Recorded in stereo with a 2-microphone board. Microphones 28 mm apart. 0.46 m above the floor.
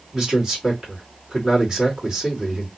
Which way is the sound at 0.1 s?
25° right (ahead or behind).